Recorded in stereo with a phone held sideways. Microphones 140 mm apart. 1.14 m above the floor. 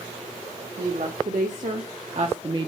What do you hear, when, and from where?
0.8 s a woman speaking: 70° right (ahead or behind), 1.7 m; by 2.7 s 35° right (ahead or behind), 0.7 m